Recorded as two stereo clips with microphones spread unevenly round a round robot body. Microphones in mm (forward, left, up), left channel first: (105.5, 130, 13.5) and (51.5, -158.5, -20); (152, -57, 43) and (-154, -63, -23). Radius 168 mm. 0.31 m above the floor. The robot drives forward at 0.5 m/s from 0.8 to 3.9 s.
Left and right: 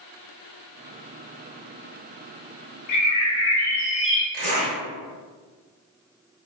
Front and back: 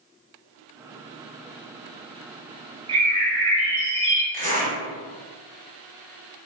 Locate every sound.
2.9 s a bird: 115° left, 0.5 m; by 4.2 s 150° left, 0.8 m
4.3 s a zipper: 150° right, 1.7 m